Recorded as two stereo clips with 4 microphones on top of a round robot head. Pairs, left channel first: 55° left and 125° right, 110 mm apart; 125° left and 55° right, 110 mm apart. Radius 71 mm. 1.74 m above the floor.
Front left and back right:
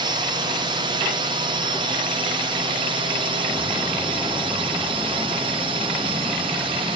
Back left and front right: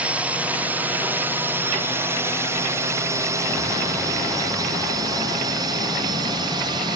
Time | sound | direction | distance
0.0 | a drone | 130° right | ?